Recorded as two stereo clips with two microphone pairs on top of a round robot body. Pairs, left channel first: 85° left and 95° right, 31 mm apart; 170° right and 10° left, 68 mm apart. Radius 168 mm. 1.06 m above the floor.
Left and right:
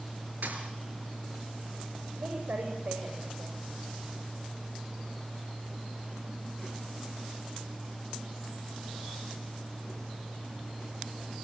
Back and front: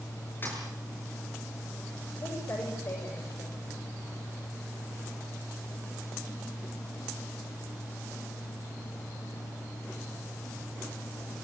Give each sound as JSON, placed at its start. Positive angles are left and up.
{"t": 0.4, "sound": "a thud", "azimuth_deg": -115, "distance_m": 5.0}
{"t": 2.2, "sound": "a woman speaking", "azimuth_deg": -120, "distance_m": 7.0}